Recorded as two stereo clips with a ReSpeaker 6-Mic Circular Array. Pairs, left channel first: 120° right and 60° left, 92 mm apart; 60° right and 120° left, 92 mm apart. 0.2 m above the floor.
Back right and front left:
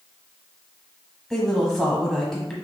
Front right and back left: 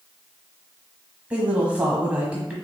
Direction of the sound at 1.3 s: 160° left.